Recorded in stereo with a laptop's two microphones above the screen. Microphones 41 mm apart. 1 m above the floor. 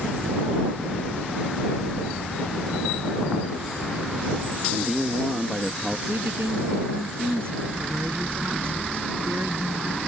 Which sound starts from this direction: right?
A woman speaking, at 6.1 s.